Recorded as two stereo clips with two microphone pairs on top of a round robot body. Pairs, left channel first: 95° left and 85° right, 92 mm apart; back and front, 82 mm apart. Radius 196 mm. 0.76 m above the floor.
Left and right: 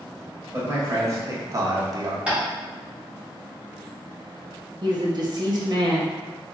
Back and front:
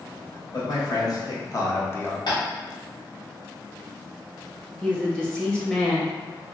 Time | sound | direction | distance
0.5 | a man speaking | 150° right | 1.5 m
2.3 | tapping | 165° right | 1.6 m
4.8 | a woman speaking | 100° right | 1.1 m